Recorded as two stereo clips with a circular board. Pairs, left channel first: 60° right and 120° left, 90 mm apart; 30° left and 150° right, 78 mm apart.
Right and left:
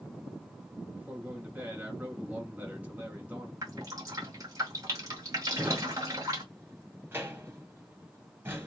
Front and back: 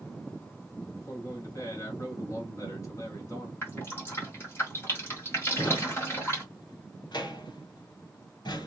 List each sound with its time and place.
1.0 s a man speaking: 55° left, 1.9 m
3.6 s dripping: 80° left, 1.9 m
5.5 s a drawer: 55° left, 1.3 m